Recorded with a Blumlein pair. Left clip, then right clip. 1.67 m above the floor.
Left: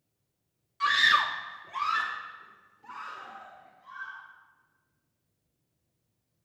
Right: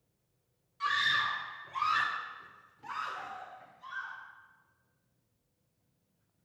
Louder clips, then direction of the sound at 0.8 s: Left 6 dB; 70° left.